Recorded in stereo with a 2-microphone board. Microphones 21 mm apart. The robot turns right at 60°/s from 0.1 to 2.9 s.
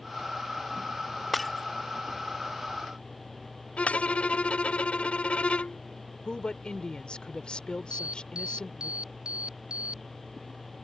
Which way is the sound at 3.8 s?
70° left (ahead or behind).